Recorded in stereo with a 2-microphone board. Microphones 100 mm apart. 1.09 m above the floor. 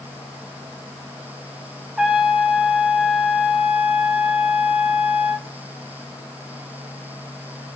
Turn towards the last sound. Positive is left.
turn(degrees=-10)  # may be behind; listen again after turning